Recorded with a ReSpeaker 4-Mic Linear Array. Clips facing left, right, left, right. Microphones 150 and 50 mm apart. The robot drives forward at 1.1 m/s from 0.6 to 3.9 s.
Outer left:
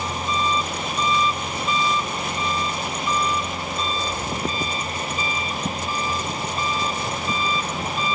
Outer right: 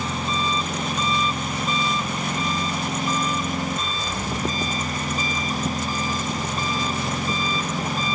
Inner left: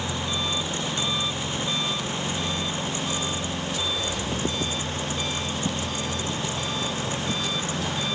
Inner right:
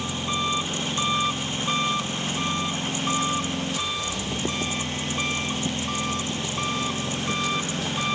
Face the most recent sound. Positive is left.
turn(degrees=-40)  # may be behind; listen again after turning